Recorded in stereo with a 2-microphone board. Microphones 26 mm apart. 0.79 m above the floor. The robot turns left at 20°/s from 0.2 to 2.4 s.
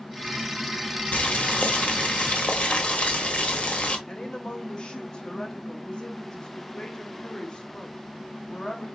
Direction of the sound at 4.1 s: 30° left (ahead or behind).